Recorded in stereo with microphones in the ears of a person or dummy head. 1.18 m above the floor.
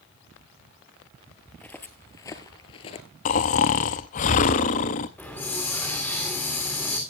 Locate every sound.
1.5 s footsteps: 5° left (ahead or behind), 1.5 m; by 3.1 s 30° left (ahead or behind), 1.3 m
3.2 s snoring: 25° left (ahead or behind), 0.6 m
5.2 s a hiss: 5° left (ahead or behind), 2.5 m